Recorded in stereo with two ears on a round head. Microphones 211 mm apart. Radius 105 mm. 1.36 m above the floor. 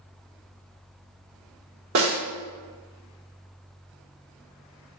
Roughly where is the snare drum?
Right.